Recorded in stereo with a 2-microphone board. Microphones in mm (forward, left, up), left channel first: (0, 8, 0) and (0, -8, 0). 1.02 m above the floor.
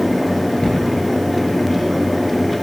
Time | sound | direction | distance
0.6 | a cupboard door | 55° left (ahead or behind) | 8.5 m